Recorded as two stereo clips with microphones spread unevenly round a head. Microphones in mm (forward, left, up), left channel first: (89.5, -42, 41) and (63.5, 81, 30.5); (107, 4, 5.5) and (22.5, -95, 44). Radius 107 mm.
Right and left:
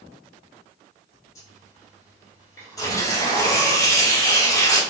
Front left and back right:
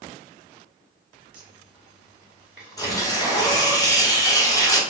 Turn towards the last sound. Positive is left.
turn(degrees=-15)